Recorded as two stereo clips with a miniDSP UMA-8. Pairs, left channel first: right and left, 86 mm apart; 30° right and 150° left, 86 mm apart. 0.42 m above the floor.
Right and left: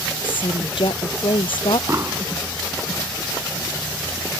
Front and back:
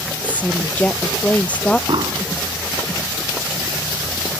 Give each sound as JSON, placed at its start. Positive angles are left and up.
{"t": 0.2, "sound": "a woman speaking", "azimuth_deg": -105}
{"t": 1.9, "sound": "an explosion", "azimuth_deg": 145}